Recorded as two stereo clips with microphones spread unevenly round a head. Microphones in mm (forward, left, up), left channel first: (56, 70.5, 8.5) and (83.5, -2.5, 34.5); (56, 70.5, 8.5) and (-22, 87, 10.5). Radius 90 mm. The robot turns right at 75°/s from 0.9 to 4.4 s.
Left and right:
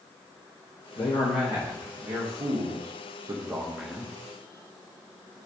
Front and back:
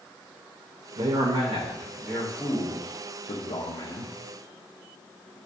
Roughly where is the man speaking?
Behind.